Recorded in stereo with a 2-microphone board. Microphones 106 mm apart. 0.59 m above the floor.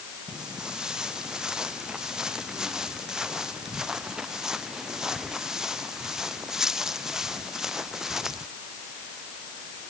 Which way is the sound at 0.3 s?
5° right (ahead or behind).